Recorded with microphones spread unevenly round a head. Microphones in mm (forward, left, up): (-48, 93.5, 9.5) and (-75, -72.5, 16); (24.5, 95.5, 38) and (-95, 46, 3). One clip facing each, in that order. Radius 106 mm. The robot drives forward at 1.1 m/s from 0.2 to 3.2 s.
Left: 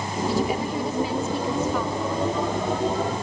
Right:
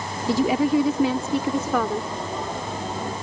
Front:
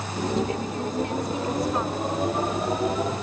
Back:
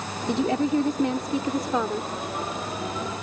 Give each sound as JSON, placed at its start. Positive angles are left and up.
{"t": 0.3, "sound": "a woman speaking", "azimuth_deg": -105}